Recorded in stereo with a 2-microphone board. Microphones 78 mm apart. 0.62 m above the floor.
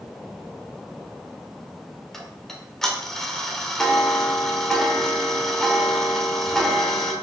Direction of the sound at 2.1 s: 5° left (ahead or behind).